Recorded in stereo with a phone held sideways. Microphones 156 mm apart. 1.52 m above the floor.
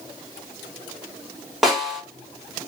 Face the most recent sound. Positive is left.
turn(degrees=0)  # may be behind; listen again after turning